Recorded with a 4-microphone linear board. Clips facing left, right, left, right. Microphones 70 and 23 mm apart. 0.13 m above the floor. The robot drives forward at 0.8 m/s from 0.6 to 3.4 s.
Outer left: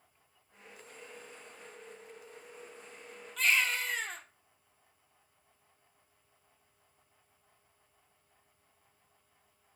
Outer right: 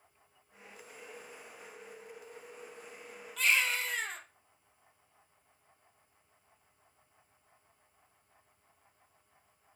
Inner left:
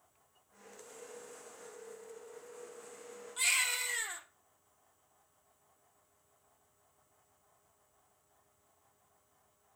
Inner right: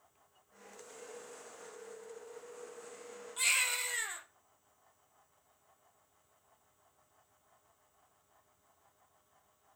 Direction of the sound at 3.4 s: Centre (ahead or behind).